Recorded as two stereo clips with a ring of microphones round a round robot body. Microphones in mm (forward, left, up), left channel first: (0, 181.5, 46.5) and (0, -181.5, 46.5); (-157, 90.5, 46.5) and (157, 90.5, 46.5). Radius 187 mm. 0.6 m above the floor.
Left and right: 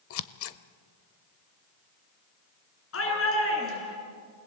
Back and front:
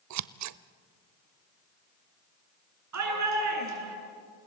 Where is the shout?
35° left, 7.5 m.